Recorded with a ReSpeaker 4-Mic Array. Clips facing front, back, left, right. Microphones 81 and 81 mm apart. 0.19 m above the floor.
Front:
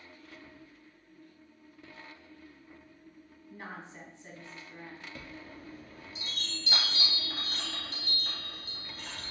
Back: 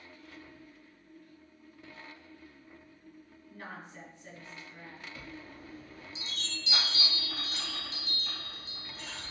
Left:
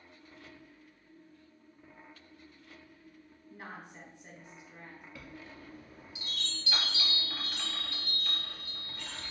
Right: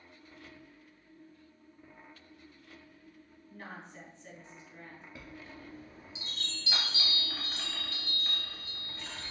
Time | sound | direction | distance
3.5 | a woman speaking | 35° left | 1.1 m
5.2 | a chime | 25° right | 1.1 m